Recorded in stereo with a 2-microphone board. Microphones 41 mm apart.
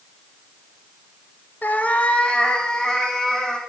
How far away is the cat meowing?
About 0.8 m.